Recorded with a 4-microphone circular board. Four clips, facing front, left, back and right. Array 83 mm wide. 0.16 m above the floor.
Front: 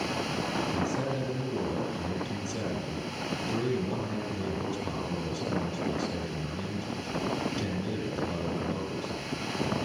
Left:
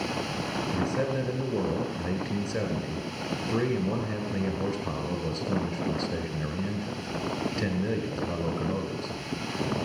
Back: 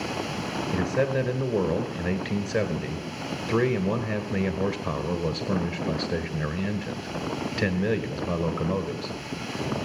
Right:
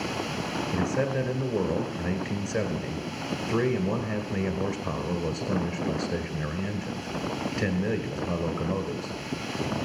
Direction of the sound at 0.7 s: 175° right.